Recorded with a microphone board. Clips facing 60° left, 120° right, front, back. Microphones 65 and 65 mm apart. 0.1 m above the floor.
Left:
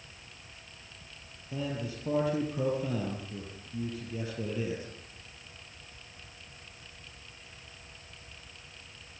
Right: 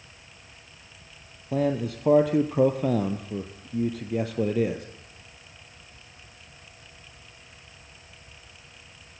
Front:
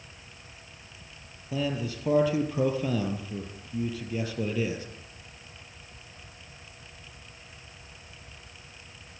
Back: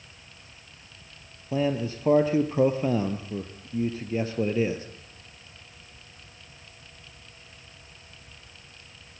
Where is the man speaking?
125° right, 2 m.